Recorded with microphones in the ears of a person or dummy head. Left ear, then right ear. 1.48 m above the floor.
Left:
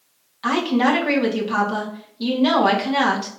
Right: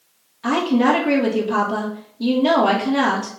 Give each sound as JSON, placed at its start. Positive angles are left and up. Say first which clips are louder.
{"t": 0.4, "sound": "a woman speaking", "louder": "right 1 dB", "side_deg": 40, "distance_m": 1.8}